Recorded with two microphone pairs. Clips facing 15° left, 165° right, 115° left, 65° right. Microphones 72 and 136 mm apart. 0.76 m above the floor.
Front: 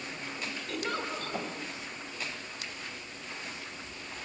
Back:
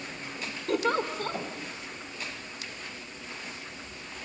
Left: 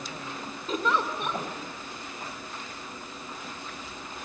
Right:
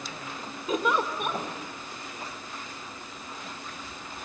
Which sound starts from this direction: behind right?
A giggle, at 0.7 s.